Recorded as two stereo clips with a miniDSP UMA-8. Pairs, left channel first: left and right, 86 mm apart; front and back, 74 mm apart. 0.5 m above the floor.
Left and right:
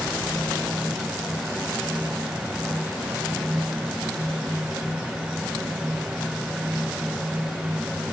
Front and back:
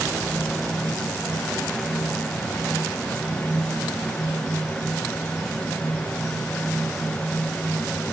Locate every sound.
Only background noise.